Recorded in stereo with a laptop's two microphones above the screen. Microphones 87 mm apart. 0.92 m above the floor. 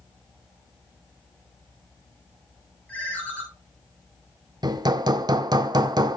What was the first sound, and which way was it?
A ringtone, 15° left (ahead or behind).